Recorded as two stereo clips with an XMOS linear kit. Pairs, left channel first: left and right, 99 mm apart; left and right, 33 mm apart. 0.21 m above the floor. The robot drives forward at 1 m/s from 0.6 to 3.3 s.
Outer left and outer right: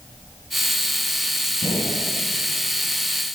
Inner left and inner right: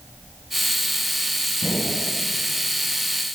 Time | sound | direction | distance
1.6 | a gunshot | 70° right (ahead or behind) | 5 m